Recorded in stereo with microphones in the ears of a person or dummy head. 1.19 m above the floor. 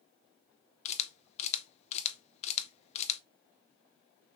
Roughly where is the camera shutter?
Left.